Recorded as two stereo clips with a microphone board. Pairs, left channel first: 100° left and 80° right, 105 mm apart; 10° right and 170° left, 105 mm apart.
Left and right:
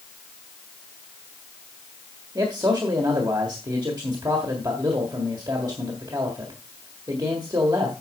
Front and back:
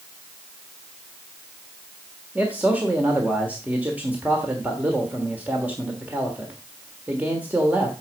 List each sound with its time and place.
2.4 s a man speaking: 120° right, 1.4 m